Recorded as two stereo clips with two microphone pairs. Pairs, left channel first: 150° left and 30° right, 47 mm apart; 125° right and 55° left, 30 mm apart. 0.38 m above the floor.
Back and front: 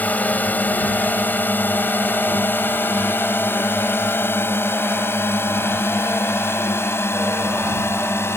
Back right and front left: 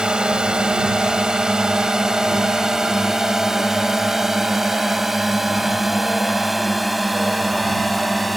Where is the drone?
105° left; by 8.4 s 150° left.